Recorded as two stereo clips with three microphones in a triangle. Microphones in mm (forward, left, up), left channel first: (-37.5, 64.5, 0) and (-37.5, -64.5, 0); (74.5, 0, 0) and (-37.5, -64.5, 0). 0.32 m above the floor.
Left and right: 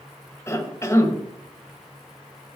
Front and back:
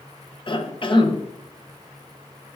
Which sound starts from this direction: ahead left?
A cough, at 0.5 s.